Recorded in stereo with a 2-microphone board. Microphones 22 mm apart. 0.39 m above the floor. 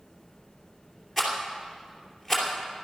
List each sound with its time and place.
1.2 s a rattle: centre (ahead or behind), 3 m